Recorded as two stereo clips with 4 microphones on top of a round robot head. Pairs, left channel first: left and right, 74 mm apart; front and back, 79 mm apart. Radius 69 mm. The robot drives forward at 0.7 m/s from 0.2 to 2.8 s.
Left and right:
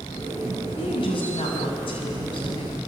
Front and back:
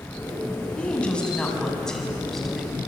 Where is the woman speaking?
75° left, 7 m; by 2.8 s 85° left, 6.5 m.